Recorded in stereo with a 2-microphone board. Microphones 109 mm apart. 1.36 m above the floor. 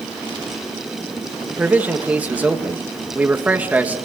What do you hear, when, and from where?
1.5 s a man speaking: 15° right (ahead or behind), 2.0 m